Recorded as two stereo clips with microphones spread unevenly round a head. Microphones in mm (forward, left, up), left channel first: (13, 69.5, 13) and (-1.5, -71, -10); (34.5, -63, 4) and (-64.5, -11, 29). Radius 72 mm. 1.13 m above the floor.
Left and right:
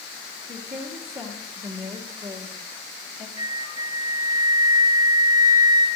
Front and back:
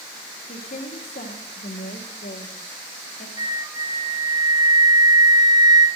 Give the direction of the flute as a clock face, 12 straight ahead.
5 o'clock.